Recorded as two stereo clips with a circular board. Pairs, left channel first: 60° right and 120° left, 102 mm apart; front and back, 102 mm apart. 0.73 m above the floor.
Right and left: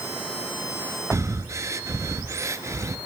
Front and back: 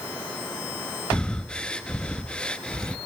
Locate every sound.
1.1 s breathing: 75° left, 0.7 m